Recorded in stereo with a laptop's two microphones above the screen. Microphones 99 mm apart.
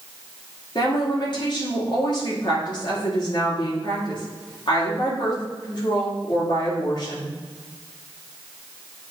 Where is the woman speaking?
55° left (ahead or behind), 2.5 m.